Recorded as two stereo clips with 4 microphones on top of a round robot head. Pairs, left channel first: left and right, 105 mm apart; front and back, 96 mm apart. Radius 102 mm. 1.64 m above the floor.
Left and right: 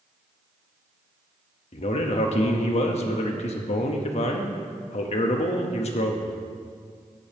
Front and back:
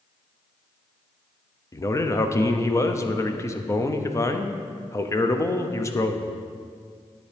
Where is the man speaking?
60° left, 0.8 m.